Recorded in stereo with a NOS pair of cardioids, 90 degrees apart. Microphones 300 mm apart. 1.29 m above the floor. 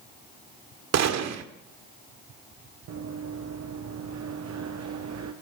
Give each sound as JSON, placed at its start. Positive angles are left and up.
{"t": 0.9, "sound": "a gunshot", "azimuth_deg": -65, "distance_m": 2.0}
{"t": 2.9, "sound": "running footsteps", "azimuth_deg": -65, "distance_m": 4.0}